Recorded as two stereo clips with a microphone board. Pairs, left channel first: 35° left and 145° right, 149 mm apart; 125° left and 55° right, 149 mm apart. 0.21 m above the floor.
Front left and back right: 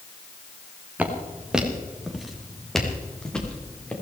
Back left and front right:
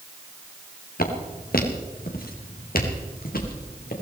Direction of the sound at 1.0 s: 135° left.